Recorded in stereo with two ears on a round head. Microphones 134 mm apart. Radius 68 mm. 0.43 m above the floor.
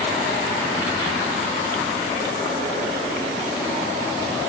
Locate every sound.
Only background noise.